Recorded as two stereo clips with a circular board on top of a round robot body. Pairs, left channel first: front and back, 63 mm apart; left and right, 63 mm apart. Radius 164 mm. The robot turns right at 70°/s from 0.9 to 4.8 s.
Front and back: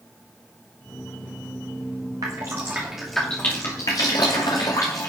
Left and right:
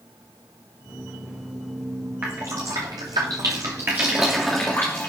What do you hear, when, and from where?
2.2 s dripping: 150° right, 0.7 m; by 5.1 s 30° left, 0.7 m